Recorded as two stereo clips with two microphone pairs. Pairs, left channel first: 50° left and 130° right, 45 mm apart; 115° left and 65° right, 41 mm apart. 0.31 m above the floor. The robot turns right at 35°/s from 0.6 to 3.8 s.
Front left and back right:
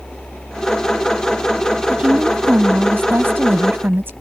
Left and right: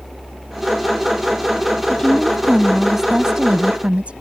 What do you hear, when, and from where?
1.9 s a woman speaking: 175° left; by 4.1 s 120° right